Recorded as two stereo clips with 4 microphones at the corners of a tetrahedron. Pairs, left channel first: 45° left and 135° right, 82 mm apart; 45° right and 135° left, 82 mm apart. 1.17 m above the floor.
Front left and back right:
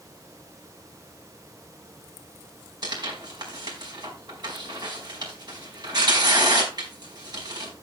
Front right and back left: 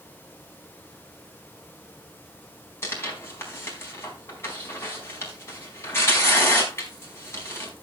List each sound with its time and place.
2.8 s tearing paper: 100° right, 4.5 m